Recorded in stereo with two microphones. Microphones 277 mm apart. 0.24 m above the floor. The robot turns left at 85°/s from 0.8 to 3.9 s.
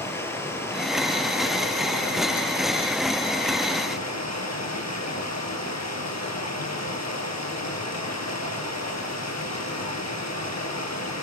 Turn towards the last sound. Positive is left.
turn(degrees=105)